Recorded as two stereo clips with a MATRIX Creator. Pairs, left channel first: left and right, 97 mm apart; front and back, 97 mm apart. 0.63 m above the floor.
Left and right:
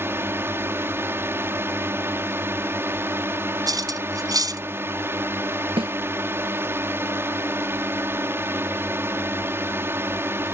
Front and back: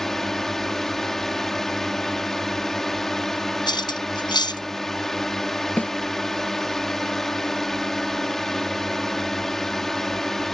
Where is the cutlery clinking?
40° right.